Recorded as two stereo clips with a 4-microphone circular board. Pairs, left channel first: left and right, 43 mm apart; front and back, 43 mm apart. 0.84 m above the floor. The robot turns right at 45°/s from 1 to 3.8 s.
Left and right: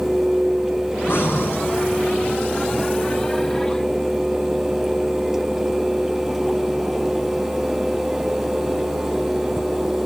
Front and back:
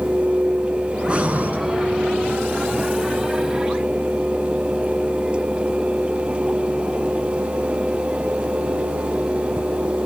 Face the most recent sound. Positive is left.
turn(degrees=-125)